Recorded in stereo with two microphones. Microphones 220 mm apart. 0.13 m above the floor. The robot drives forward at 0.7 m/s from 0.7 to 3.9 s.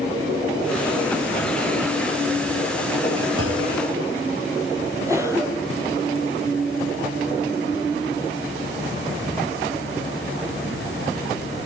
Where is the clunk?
70° right (ahead or behind), 9 m; by 3.7 s 75° right (ahead or behind), 9 m.